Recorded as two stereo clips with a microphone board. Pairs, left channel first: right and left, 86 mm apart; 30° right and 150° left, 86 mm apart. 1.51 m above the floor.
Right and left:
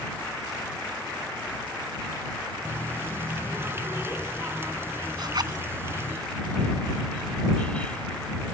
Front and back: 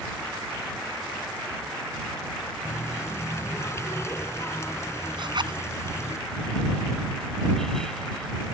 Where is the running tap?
30° left.